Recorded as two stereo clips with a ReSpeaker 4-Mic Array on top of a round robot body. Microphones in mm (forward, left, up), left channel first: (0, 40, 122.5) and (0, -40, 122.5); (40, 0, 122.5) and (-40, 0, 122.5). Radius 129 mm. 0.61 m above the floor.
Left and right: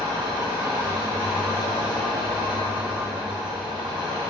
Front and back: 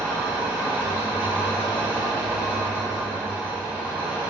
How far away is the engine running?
About 0.7 m.